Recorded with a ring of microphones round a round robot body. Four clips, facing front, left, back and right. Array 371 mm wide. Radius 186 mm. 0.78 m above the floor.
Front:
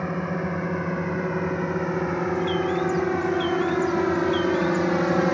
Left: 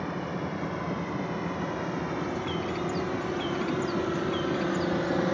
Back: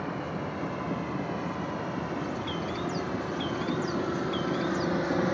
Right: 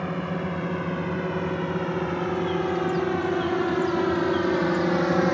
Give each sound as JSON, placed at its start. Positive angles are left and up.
{"t": 0.0, "sound": "a drone", "azimuth_deg": -30}
{"t": 2.4, "sound": "a bird", "azimuth_deg": 105}